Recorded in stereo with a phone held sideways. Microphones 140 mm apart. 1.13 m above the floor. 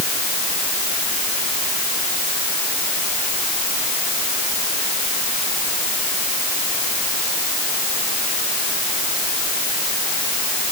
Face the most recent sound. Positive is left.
No sound to turn to.